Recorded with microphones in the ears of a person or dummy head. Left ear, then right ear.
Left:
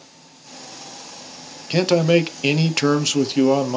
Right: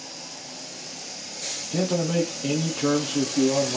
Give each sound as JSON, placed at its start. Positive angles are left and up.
{"t": 1.7, "sound": "a man speaking", "side_deg": 70, "distance_m": 0.6}